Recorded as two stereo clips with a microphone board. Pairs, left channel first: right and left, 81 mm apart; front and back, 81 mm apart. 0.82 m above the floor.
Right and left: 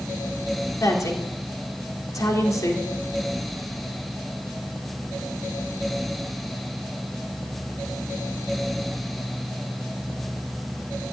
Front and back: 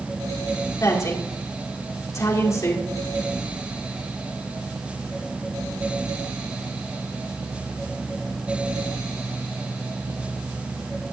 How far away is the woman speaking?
About 2.5 m.